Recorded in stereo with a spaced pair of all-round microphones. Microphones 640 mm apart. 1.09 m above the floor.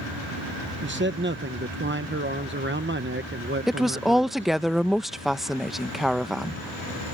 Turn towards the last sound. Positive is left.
turn(degrees=0)  # may be behind; listen again after turning